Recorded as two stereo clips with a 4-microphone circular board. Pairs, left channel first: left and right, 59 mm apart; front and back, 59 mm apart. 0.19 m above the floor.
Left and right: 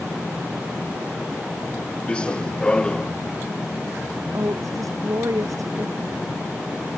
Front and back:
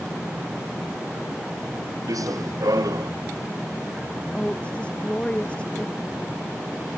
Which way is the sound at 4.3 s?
70° right.